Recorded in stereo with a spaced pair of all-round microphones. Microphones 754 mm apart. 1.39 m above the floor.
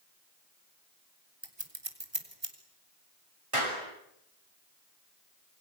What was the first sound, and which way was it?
Scissors, 35° right (ahead or behind).